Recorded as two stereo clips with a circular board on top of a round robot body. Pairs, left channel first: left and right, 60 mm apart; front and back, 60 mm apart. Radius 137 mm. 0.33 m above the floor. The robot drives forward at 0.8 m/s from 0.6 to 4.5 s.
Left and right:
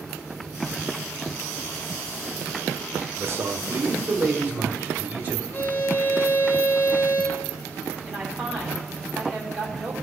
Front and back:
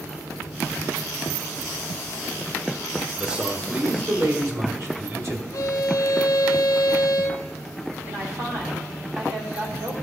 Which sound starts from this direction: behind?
A woman speaking, at 8.1 s.